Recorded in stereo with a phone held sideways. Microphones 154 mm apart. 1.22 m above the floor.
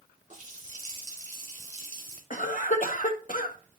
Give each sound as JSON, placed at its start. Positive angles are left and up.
{"t": 0.3, "sound": "a running tap", "side_deg": -60, "distance_m": 3.0}
{"t": 2.3, "sound": "a cough", "side_deg": 70, "distance_m": 1.4}